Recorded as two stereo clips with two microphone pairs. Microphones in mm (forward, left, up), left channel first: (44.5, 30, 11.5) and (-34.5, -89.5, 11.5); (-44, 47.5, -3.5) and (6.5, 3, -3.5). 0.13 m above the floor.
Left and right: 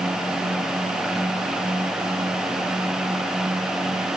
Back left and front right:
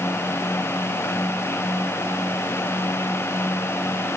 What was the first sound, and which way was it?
Only background noise.